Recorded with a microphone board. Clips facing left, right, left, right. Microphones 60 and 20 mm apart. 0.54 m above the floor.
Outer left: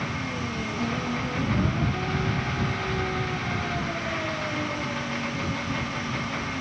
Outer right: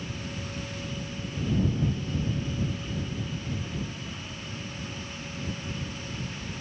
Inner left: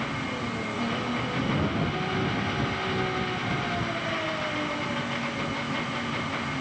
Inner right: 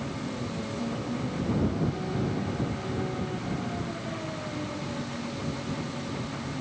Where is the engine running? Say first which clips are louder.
Outer left 7 dB, inner left 4 dB; 75° left (ahead or behind).